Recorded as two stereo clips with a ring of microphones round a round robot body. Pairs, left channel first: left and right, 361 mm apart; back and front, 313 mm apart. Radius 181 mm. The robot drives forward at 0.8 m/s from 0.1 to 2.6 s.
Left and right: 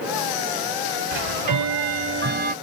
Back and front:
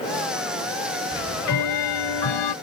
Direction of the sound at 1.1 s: 115° right.